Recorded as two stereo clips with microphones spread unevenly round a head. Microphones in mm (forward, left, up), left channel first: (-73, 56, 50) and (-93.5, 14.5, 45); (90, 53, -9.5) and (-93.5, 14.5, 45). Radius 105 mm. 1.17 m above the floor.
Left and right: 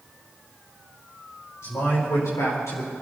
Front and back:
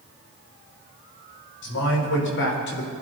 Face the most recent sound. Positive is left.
turn(degrees=40)